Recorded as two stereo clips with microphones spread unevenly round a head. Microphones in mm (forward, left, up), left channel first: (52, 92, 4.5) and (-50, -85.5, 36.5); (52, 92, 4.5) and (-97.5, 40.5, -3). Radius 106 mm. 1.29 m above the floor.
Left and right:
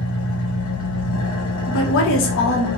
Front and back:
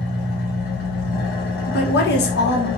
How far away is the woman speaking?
About 1.4 m.